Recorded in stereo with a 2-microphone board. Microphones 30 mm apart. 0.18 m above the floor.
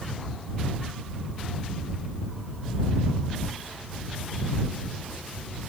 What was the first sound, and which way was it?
Only background noise.